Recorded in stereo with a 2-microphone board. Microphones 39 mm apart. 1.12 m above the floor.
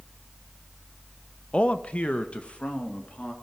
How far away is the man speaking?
About 0.5 m.